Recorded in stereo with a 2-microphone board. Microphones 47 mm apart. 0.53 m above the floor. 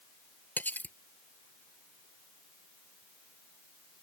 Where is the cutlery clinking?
40° left (ahead or behind).